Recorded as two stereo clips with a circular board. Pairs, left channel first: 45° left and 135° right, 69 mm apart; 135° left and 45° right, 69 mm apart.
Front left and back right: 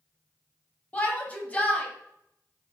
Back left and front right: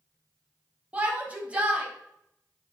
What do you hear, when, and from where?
0.9 s a shout: 5° left, 1.1 m